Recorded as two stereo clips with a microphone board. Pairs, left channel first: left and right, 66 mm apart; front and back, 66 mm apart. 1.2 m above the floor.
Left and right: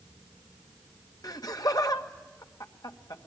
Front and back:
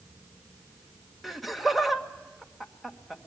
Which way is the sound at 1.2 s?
90° left.